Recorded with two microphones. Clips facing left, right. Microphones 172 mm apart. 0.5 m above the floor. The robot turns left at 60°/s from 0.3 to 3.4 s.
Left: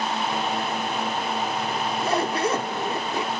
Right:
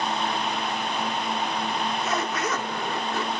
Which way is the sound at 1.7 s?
120° left.